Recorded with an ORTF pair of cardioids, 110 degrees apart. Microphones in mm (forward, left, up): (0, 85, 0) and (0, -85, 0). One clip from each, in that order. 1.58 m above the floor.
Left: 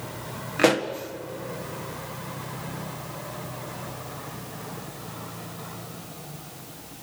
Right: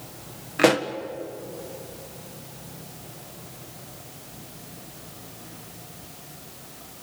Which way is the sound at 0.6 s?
5° right.